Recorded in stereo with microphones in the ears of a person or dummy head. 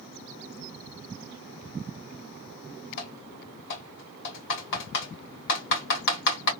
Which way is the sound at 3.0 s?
70° left (ahead or behind).